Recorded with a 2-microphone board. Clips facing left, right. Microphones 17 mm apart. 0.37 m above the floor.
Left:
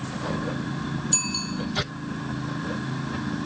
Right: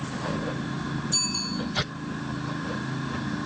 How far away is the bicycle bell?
About 7 m.